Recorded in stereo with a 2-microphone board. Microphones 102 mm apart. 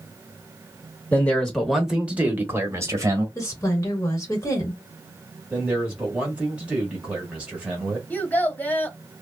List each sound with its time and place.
1.1 s a man speaking: 15° left (ahead or behind), 0.9 m; by 3.2 s 35° right (ahead or behind), 1.3 m
3.4 s a woman speaking: 30° left (ahead or behind), 1.2 m
5.5 s a man speaking: 10° right (ahead or behind), 1.5 m
8.1 s a child speaking: 15° left (ahead or behind), 0.8 m